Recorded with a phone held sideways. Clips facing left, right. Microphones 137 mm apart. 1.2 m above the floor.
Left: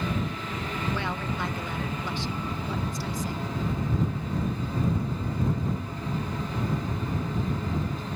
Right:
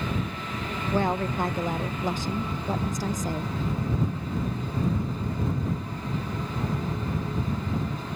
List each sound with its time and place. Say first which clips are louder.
0.9 s a woman speaking: right 6 dB; 45° right (ahead or behind)